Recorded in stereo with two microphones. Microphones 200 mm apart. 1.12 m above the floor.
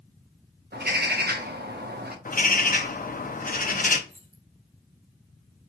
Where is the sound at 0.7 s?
55° right (ahead or behind), 0.7 m.